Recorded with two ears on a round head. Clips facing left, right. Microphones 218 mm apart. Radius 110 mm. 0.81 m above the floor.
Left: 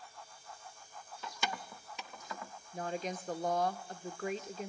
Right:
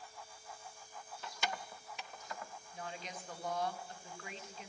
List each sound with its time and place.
1.2 s keys jangling: 65° left (ahead or behind), 0.5 m; by 2.5 s 70° left (ahead or behind), 1.0 m
2.7 s a woman speaking: 40° left (ahead or behind), 1.0 m